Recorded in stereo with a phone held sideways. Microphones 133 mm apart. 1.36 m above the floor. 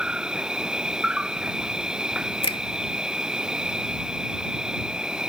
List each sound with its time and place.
0.0 s an insect: 5° right (ahead or behind)
2.4 s a finger snap: 40° left (ahead or behind)